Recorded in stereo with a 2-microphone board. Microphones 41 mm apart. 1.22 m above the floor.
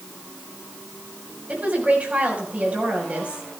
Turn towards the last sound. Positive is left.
turn(degrees=-40)  # may be behind; listen again after turning